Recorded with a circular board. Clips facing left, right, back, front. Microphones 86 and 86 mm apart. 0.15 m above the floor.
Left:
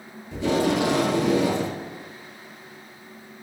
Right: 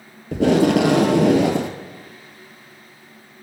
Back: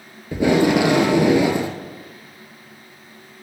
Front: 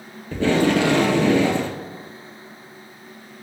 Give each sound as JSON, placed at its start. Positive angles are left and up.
{"t": 0.3, "sound": "tape being pulled", "azimuth_deg": -105, "distance_m": 0.8}